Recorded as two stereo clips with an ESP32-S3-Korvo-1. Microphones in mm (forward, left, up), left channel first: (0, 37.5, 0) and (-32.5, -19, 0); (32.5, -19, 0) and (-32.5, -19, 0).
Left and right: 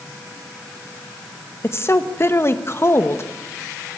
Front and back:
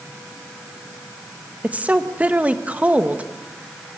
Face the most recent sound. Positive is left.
turn(degrees=110)